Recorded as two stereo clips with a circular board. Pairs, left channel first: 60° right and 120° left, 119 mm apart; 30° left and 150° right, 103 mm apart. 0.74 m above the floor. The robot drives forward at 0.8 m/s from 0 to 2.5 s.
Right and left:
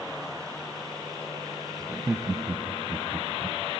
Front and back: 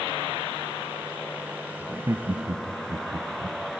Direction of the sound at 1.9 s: 170° left.